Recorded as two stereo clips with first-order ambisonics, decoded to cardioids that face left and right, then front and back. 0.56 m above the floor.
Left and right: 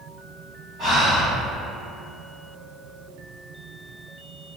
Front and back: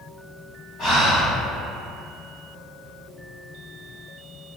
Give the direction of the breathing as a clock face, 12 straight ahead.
2 o'clock.